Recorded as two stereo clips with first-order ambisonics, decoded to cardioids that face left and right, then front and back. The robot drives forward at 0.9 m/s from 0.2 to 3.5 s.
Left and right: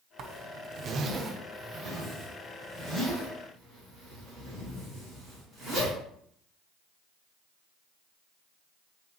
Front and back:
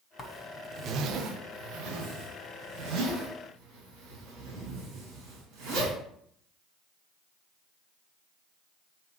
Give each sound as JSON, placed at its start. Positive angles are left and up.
{"t": 0.2, "sound": "a zipper", "azimuth_deg": -55, "distance_m": 0.6}